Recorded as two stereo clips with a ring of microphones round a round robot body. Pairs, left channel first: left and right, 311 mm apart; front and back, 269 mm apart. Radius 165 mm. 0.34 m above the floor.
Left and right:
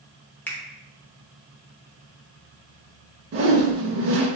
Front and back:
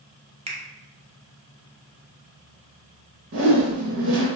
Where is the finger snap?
165° left, 0.6 m.